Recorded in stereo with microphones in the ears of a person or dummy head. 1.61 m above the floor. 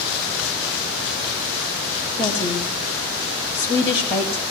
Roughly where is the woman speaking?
Left.